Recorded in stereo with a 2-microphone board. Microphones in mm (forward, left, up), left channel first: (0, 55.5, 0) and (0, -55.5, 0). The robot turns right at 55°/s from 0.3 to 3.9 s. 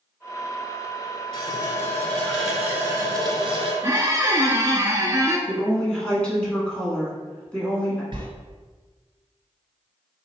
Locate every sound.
1.3 s a running tap: 120° left, 1.3 m; by 3.7 s 105° right, 1.3 m
3.8 s a squeak: 25° right (ahead or behind), 0.6 m; by 5.4 s 30° right (ahead or behind), 0.6 m
5.5 s a woman speaking: 10° left (ahead or behind), 1.2 m
8.1 s a sliding door: 45° right (ahead or behind), 1.2 m